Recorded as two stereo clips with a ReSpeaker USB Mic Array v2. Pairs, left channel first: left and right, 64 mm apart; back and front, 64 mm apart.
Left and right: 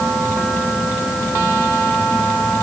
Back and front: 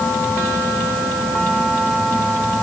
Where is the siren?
No siren in this recording.